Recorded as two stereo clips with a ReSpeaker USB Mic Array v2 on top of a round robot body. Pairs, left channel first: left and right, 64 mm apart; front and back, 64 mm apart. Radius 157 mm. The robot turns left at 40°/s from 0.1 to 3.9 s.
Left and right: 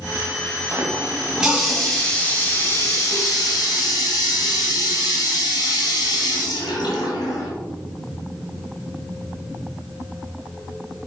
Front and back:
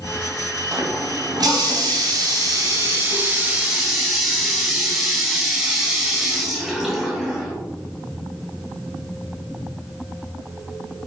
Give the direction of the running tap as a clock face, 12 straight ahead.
5 o'clock.